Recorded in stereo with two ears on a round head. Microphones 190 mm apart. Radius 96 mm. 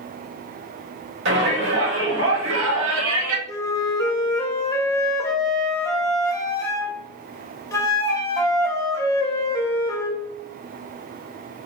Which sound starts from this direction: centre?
A flute, at 3.5 s.